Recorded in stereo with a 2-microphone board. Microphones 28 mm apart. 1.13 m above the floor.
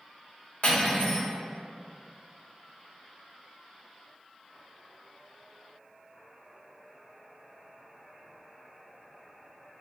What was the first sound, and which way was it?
Cutlery clinking, 55° left (ahead or behind).